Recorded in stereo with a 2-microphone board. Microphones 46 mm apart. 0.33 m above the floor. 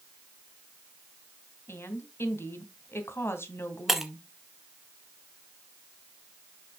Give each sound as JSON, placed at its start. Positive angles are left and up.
{"t": 1.7, "sound": "a woman speaking", "side_deg": 60, "distance_m": 2.0}
{"t": 3.9, "sound": "breaking glass", "side_deg": -10, "distance_m": 1.4}